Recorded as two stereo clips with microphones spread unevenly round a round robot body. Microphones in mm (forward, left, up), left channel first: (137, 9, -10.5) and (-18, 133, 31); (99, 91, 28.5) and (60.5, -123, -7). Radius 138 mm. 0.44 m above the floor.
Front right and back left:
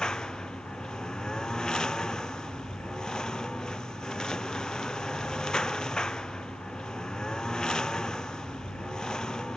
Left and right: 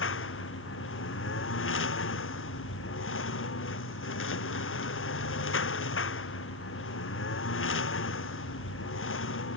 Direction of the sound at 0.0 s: 50° left.